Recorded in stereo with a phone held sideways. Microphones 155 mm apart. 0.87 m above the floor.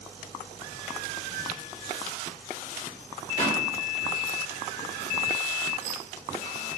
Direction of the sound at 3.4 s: 45° left (ahead or behind).